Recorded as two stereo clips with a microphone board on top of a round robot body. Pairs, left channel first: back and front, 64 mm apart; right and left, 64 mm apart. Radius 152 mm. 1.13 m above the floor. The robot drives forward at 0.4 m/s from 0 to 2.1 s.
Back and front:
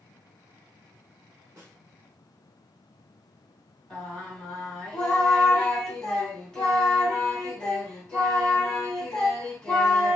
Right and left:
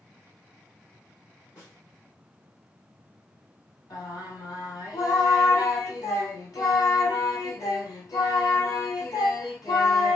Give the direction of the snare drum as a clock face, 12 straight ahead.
2 o'clock.